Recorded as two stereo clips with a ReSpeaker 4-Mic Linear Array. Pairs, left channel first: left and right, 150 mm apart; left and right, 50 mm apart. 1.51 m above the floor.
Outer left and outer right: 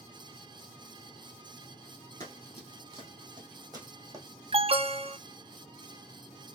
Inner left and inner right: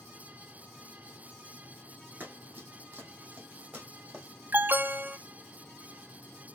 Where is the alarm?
40° right (ahead or behind), 0.5 m.